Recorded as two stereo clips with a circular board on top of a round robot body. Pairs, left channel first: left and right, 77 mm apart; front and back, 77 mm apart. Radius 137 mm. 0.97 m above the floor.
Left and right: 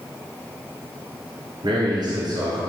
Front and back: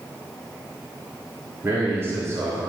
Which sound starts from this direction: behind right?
A man speaking, at 1.6 s.